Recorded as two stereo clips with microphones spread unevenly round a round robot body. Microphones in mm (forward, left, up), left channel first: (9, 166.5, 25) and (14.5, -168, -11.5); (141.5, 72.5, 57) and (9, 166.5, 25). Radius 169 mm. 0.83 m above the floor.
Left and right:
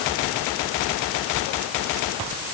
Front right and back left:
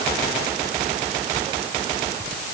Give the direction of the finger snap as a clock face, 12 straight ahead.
No finger snap in this recording.